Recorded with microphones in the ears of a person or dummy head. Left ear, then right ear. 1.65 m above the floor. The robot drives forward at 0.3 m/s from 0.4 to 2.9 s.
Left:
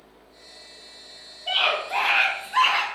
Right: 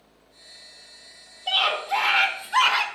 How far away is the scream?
About 0.7 m.